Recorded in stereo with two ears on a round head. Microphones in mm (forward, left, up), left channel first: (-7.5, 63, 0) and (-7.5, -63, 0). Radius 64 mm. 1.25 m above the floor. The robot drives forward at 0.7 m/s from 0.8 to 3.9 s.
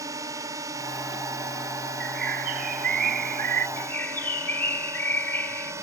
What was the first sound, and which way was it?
A drone, 25° right (ahead or behind).